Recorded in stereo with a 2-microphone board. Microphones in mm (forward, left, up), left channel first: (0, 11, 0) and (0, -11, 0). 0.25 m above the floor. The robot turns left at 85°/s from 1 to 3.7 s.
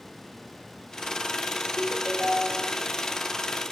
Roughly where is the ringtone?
Ahead right.